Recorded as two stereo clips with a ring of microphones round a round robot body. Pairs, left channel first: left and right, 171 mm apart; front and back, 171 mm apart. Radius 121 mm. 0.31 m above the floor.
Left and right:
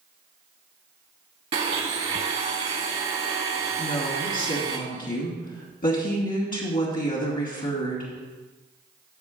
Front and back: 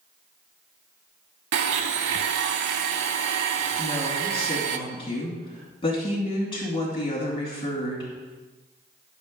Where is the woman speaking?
60° left, 3 m.